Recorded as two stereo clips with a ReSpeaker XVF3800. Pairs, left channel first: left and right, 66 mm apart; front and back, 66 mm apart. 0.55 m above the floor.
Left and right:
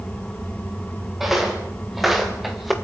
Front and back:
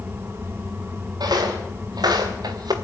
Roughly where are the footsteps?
Behind.